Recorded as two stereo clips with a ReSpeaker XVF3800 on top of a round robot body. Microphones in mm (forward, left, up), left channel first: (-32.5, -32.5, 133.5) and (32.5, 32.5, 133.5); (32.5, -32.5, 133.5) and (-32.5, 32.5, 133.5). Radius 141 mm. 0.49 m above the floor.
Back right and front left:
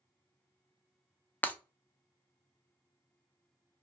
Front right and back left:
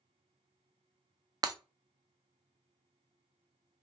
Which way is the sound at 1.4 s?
160° left.